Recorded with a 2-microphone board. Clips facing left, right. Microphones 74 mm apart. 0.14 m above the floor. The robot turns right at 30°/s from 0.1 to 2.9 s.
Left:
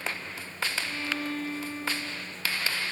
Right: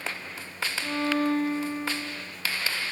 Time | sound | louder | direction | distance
0.8 | a violin | right 7 dB | 55° right | ?